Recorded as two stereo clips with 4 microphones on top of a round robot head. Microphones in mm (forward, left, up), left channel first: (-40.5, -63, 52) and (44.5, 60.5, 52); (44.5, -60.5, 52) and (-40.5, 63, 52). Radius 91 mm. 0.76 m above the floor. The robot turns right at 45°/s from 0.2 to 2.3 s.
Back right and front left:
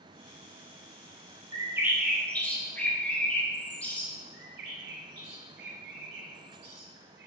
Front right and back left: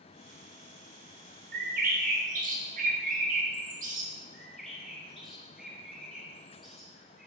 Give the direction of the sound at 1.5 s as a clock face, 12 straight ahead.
8 o'clock.